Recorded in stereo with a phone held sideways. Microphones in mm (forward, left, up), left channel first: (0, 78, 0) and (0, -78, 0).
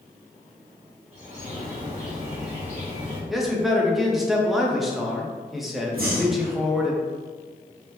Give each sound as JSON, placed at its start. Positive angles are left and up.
{"t": 1.1, "sound": "a bird", "side_deg": -40, "distance_m": 1.3}
{"t": 3.3, "sound": "a man speaking", "side_deg": 0, "distance_m": 0.6}
{"t": 5.9, "sound": "breathing", "side_deg": -65, "distance_m": 0.7}